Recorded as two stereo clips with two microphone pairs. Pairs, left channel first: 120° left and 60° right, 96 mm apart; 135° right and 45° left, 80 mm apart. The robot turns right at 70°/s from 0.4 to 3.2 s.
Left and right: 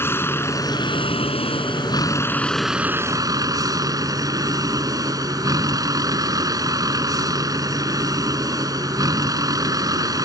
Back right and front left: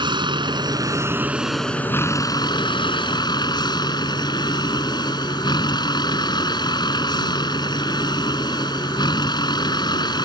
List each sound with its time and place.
0.0 s a vehicle: 55° left; by 10.2 s 110° right